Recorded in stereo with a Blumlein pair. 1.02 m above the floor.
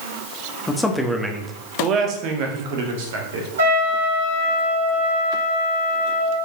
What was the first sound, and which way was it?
A man speaking, 15° left.